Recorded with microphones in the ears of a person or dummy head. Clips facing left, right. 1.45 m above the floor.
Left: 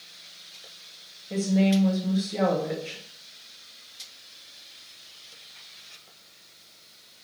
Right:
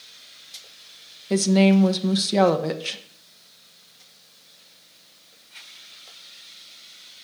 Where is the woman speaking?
80° right, 1.0 m.